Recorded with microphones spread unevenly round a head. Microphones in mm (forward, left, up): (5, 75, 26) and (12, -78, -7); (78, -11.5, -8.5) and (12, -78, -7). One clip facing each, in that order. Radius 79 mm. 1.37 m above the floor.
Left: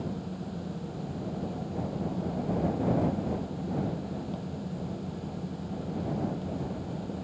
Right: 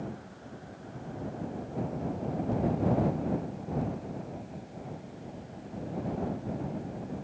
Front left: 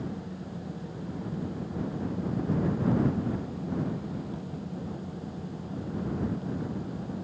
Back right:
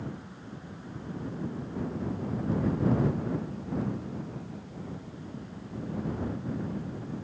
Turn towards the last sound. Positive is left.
turn(degrees=95)